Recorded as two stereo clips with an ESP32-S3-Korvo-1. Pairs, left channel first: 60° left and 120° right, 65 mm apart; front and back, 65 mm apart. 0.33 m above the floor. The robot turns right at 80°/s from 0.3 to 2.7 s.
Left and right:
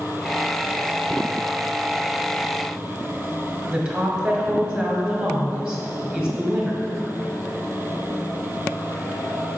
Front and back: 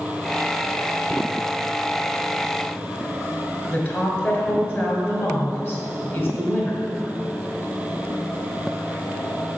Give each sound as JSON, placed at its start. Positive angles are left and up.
{"t": 3.7, "sound": "a woman speaking", "azimuth_deg": -50, "distance_m": 1.5}